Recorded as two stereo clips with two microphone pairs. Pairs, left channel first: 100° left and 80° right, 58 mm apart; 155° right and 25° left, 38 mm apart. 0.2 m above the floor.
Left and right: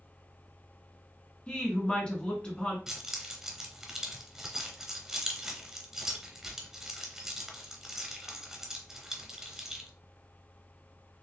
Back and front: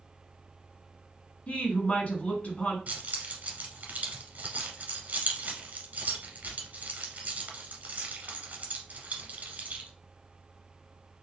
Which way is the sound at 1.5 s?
170° left.